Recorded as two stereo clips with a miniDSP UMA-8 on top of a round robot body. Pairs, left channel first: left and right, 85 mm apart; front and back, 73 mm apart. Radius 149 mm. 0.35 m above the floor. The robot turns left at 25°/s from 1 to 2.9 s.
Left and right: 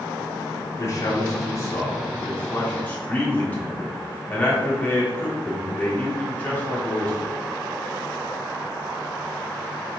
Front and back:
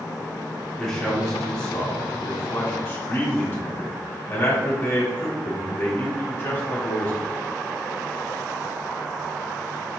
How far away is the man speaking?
About 1.6 m.